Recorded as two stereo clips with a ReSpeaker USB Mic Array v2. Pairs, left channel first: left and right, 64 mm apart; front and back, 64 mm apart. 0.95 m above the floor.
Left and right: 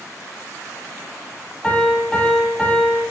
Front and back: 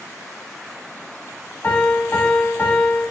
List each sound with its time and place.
1.6 s a piano: 25° left, 0.9 m